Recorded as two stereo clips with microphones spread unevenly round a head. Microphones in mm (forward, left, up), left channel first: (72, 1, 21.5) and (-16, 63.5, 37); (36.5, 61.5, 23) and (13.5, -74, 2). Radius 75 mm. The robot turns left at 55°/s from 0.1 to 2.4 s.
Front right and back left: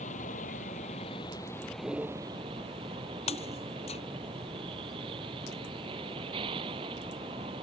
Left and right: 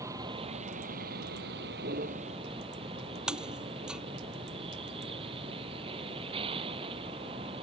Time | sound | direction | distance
0.0 | a vehicle | 30° right | ?
3.3 | breaking glass | 10° right | ?